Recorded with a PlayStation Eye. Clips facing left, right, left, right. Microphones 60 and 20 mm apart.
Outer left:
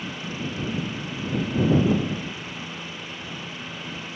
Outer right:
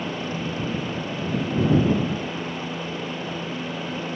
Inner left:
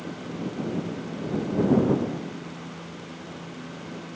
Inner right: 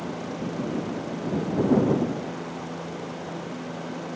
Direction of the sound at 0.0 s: 45° right (ahead or behind).